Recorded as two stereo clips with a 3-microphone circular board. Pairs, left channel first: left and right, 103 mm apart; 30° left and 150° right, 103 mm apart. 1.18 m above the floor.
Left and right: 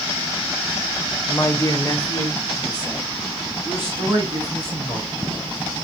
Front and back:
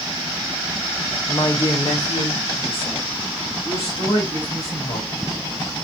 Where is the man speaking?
40° left, 0.6 m; by 5.1 s 45° left, 3 m.